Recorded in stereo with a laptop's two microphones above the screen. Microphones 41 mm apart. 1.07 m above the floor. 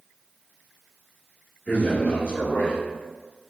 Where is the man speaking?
40° left (ahead or behind), 1.4 m.